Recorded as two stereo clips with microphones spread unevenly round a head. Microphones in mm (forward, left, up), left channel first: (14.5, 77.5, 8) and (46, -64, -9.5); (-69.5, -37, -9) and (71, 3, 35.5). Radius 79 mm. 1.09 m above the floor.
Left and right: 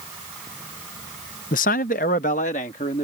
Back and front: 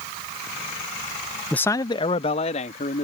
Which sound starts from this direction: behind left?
A man speaking, at 1.5 s.